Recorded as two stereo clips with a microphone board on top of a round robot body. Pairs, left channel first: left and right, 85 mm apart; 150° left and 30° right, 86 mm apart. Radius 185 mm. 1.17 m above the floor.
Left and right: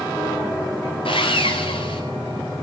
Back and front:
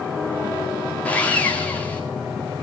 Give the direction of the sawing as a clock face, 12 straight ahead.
10 o'clock.